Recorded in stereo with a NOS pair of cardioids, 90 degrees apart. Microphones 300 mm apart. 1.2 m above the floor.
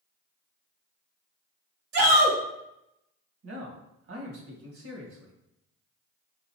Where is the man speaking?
50° right, 1.7 m.